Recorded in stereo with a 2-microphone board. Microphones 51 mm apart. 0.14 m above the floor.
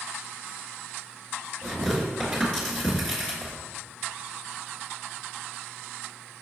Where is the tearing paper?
10° left (ahead or behind), 1.9 m.